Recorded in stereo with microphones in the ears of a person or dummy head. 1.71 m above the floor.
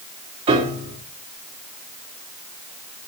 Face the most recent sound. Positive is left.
turn(degrees=-25)  # may be behind; listen again after turning